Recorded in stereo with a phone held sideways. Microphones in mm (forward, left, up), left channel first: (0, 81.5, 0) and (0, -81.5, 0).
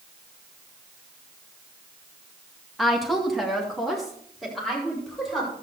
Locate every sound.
2.8 s a woman speaking: centre (ahead or behind), 1.6 m